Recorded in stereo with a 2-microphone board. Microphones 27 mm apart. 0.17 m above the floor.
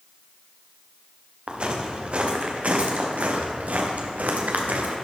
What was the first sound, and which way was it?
Footsteps, 40° right (ahead or behind).